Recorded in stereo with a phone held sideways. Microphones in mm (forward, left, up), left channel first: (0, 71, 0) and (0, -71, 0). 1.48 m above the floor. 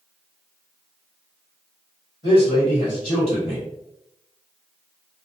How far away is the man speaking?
About 1.5 m.